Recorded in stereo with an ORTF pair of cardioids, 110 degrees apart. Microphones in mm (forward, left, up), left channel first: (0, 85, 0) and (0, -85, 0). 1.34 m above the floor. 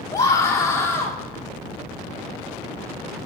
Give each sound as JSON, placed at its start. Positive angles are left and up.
{"t": 0.1, "sound": "a scream", "azimuth_deg": 20, "distance_m": 3.0}